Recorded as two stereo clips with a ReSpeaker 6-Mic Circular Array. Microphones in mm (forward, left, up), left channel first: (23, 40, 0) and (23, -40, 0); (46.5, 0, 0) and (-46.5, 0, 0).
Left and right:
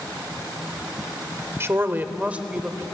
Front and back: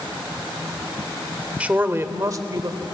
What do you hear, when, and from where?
1.6 s a woman speaking: 115° right, 1.1 m; by 2.8 s 170° right, 1.5 m